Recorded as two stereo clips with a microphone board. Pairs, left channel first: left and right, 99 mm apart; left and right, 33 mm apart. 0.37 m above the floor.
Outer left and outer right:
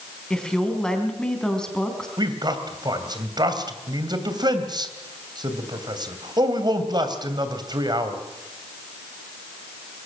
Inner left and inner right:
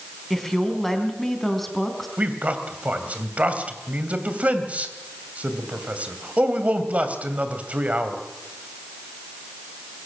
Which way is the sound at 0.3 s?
5° left (ahead or behind).